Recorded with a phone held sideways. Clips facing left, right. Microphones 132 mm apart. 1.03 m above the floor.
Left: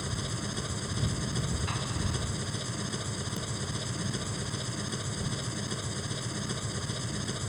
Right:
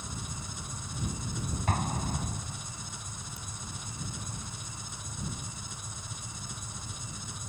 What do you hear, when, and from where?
0.0 s an engine running: 70° left (ahead or behind)
1.7 s an explosion: 50° right (ahead or behind)